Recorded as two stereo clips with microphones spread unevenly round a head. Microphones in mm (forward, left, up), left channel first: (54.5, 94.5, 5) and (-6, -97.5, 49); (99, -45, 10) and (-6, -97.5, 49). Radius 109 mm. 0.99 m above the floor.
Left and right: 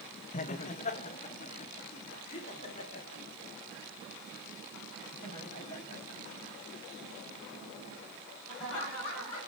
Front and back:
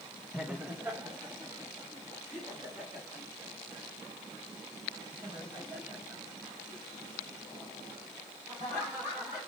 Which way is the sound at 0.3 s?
115° left.